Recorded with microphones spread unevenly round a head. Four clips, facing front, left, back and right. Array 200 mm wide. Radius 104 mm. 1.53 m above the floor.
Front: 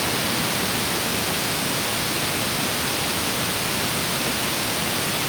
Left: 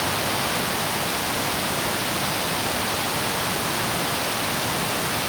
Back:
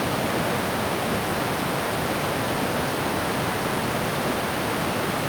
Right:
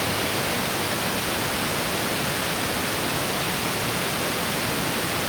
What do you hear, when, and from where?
Only background noise.